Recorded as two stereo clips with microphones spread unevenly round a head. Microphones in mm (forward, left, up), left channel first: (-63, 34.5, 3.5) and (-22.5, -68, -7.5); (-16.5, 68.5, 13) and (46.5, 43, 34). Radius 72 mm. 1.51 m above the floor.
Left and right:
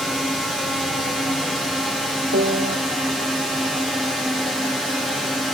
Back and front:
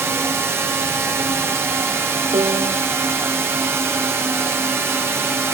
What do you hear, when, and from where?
0.0 s a drone: 20° left
2.3 s a piano: 60° right